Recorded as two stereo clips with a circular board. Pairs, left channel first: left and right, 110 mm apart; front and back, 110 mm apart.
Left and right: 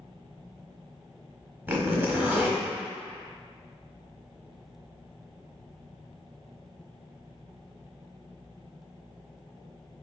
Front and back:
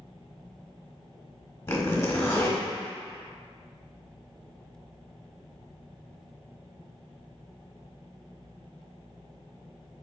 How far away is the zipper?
About 1.1 m.